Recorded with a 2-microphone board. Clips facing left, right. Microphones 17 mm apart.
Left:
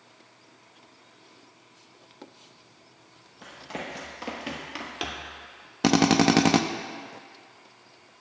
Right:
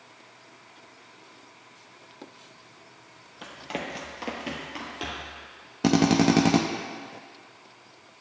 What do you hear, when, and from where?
3.4 s running footsteps: 35° right (ahead or behind), 1.7 m; by 5.3 s 35° left (ahead or behind), 1.6 m
5.8 s a drill: 20° left (ahead or behind), 0.5 m